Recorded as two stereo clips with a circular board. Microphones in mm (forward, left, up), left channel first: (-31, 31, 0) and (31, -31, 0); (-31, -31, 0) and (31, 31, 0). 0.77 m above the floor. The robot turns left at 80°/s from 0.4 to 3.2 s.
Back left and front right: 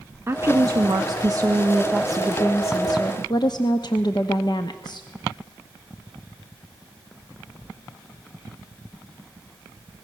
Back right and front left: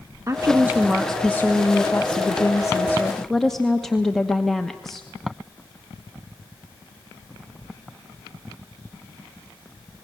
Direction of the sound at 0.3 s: 5° left.